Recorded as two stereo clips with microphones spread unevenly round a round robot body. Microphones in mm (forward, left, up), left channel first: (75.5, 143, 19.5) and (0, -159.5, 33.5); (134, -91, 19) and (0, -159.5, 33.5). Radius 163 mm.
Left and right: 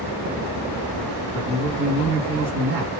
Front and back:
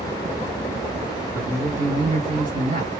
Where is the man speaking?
145° right, 2 m.